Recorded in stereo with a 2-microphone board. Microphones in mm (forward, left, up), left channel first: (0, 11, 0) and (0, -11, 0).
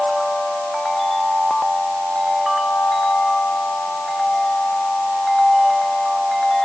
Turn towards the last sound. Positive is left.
No sound to turn to.